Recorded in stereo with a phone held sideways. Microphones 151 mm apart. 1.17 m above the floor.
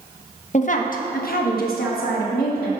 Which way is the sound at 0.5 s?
50° left (ahead or behind).